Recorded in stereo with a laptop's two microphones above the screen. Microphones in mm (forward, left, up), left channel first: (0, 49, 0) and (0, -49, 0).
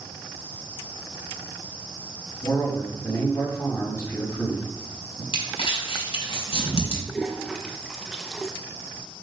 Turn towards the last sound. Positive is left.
turn(degrees=0)  # may be behind; listen again after turning